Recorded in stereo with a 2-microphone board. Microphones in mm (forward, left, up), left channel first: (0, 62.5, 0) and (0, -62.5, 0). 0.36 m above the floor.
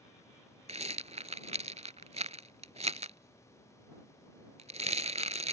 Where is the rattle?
60° right (ahead or behind).